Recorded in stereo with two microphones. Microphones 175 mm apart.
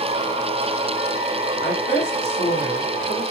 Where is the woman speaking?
80° left, 3.5 m.